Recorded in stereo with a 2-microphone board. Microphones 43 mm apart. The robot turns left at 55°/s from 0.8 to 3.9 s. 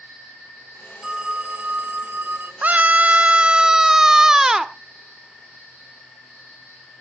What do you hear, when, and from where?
1.0 s a phone ringing: 20° right, 0.6 m; by 2.5 s 105° right, 0.6 m
2.6 s a scream: 90° right, 0.9 m; by 4.7 s 160° right, 0.9 m